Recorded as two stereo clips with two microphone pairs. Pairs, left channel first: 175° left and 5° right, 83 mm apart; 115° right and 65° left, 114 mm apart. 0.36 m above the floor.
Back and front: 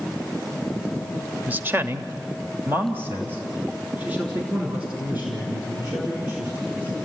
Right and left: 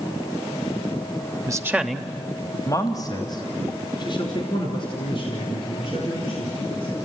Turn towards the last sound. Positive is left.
turn(degrees=-75)